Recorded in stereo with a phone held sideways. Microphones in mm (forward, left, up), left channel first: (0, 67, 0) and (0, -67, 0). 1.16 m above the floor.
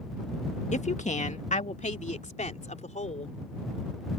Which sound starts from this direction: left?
A woman speaking, at 0.7 s.